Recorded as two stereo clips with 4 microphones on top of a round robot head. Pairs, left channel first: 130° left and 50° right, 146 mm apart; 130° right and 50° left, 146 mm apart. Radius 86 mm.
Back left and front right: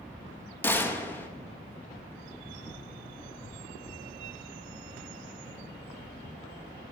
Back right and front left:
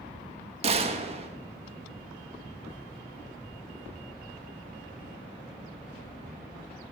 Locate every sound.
0.6 s a gunshot: 60° left, 1.2 m